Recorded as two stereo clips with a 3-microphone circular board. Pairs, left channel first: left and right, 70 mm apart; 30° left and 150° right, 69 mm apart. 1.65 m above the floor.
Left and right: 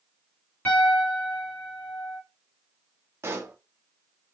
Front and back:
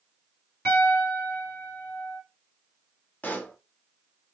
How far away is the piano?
About 1.9 m.